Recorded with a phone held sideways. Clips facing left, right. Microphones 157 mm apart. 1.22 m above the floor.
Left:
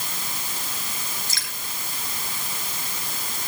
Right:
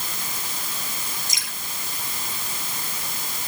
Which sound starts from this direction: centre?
Dripping, at 1.3 s.